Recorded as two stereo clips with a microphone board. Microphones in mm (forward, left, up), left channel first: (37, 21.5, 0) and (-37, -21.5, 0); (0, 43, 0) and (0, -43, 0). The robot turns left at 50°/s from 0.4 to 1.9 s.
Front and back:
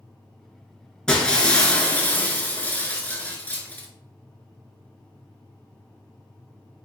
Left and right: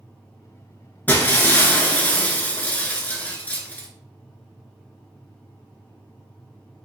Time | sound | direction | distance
1.1 | breaking glass | 100° left | 0.8 m